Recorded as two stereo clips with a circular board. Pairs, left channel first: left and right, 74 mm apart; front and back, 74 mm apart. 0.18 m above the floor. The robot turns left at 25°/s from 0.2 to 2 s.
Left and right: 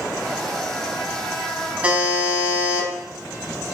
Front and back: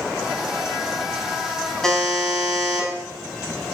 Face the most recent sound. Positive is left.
turn(degrees=-75)